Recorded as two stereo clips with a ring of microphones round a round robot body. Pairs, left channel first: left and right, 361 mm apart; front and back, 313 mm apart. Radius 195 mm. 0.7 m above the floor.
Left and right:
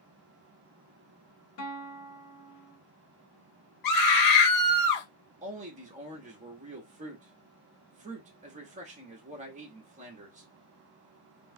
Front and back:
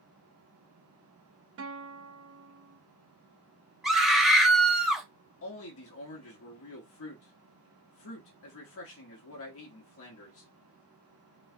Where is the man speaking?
25° right, 1.2 m.